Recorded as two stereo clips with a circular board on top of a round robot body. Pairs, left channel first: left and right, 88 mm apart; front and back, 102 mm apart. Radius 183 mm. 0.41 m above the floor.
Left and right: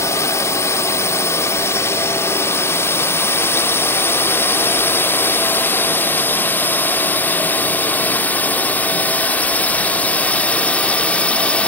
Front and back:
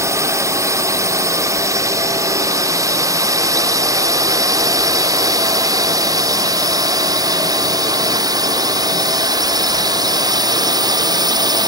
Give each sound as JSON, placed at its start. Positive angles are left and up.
{"t": 0.0, "sound": "a drone", "azimuth_deg": 130}